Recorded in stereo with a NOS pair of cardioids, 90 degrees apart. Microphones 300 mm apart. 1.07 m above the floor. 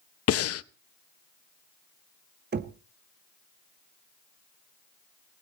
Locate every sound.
0.3 s breathing: 50° left, 0.7 m
2.5 s knocking: 35° right, 1.2 m